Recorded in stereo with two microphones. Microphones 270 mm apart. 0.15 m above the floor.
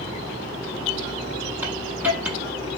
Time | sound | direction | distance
1.6 | a hiss | 5° right (ahead or behind) | 0.6 m